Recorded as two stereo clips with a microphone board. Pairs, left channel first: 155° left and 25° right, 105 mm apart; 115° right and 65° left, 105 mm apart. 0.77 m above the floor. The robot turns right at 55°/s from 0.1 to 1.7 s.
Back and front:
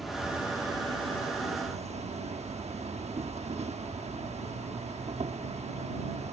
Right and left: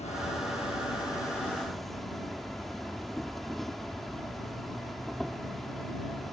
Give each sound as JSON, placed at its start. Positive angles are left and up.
{"t": 0.0, "sound": "an insect", "azimuth_deg": -110}